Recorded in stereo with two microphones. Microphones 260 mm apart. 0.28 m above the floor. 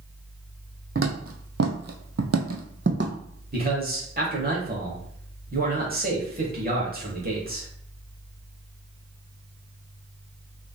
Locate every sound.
0.9 s footsteps: 50° right (ahead or behind), 0.9 m; by 3.1 s 40° right (ahead or behind), 0.9 m
3.5 s a man speaking: 35° right (ahead or behind), 1.1 m